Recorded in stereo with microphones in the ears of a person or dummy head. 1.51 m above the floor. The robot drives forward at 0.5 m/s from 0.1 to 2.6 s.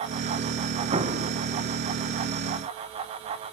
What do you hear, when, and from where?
0.9 s an explosion: 35° right (ahead or behind), 1.5 m; by 1.3 s 40° right (ahead or behind), 1.4 m